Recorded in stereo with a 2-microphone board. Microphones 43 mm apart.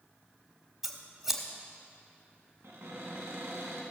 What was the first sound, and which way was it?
Scissors, 10° right (ahead or behind).